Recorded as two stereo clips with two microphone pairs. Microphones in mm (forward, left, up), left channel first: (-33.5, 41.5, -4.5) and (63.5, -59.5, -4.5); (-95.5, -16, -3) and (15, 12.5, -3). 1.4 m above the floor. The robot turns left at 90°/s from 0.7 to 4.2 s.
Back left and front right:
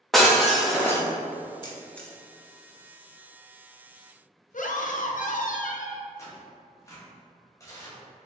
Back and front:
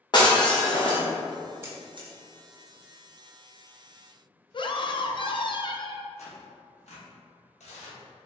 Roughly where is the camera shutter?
Left.